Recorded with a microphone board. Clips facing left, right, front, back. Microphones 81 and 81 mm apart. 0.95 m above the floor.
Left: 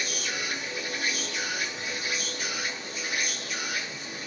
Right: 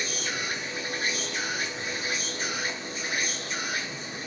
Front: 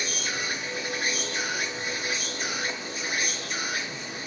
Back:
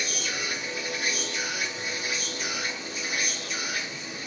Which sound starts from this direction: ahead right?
An insect, at 0.0 s.